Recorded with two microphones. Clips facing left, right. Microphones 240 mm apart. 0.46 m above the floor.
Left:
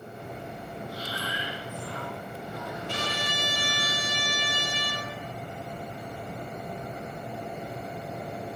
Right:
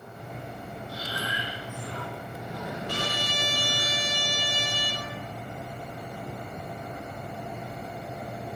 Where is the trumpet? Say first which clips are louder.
Right 1 dB; 25° left (ahead or behind), 10 m.